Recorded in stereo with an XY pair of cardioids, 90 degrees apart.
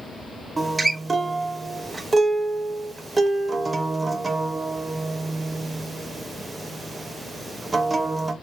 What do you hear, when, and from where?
0.6 s a guitar: 35° right, 0.5 m